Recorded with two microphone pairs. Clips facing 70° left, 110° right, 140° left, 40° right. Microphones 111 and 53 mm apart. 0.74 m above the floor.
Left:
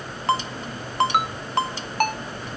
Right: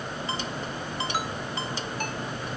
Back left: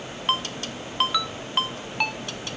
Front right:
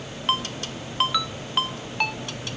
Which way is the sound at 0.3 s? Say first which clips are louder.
Left 12 dB, even; 50° left.